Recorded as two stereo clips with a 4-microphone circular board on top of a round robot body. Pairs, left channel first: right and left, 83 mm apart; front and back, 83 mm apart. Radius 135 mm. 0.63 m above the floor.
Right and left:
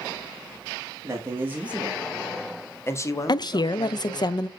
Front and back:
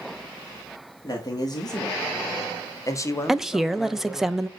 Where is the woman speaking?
95° right, 0.8 m.